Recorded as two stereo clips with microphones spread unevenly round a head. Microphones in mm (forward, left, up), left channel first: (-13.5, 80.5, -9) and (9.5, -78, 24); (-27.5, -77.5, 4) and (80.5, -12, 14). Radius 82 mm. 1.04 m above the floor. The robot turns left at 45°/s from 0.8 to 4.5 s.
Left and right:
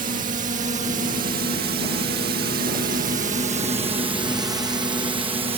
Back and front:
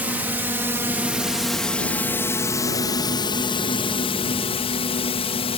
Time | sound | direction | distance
0.0 | a drone | 45° right | ?